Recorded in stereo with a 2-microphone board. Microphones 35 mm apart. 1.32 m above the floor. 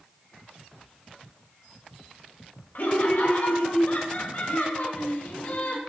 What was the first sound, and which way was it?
Laughter, 55° left (ahead or behind).